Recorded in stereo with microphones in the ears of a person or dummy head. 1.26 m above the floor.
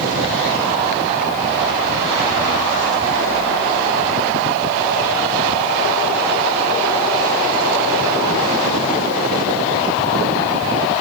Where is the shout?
No shout in this recording.